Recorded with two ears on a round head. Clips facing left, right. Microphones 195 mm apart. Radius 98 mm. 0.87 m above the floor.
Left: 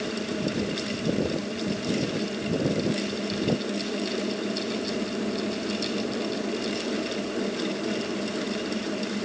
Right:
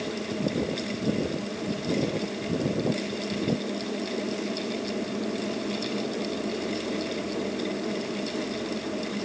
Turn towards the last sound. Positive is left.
No sound to turn to.